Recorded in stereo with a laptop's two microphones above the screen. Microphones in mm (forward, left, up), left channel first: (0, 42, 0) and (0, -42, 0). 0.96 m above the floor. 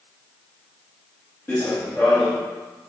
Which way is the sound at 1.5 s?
20° left (ahead or behind).